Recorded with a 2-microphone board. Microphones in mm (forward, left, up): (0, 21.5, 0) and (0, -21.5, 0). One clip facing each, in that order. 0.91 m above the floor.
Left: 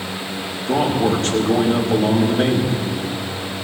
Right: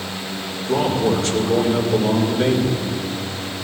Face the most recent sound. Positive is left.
turn(degrees=65)  # may be behind; listen again after turning